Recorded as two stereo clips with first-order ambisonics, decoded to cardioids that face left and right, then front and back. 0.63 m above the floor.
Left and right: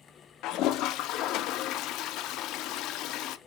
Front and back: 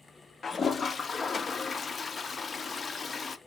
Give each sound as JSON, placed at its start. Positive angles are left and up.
{"t": 0.4, "sound": "a toilet flushing", "azimuth_deg": 70, "distance_m": 0.5}